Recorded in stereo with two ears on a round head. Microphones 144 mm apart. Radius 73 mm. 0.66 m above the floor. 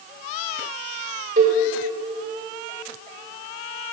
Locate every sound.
1.4 s a cowbell: 45° right (ahead or behind), 1.9 m